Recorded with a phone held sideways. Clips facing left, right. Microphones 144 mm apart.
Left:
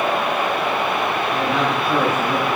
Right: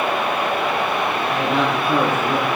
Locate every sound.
1.3 s a man speaking: centre (ahead or behind), 6 m